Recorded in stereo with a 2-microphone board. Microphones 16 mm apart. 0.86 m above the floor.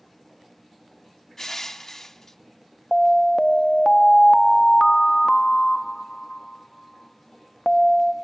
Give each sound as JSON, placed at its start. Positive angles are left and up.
{"t": 1.4, "sound": "crushing", "side_deg": 35, "distance_m": 0.8}
{"t": 2.9, "sound": "an alarm", "side_deg": 35, "distance_m": 0.7}